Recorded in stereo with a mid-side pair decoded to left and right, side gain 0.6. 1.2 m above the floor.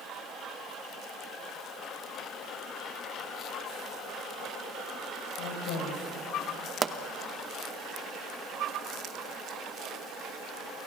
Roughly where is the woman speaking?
Left.